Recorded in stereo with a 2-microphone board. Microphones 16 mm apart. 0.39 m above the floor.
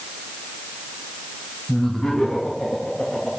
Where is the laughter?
70° left (ahead or behind), 2 m; by 3.3 s 60° left (ahead or behind), 4 m.